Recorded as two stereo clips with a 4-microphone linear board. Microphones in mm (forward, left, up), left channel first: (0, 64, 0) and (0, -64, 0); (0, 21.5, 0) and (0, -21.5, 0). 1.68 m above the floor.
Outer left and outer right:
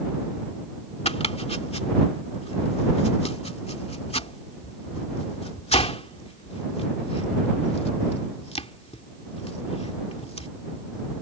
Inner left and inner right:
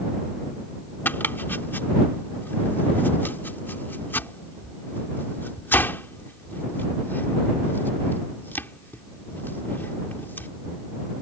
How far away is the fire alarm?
I don't hear a fire alarm.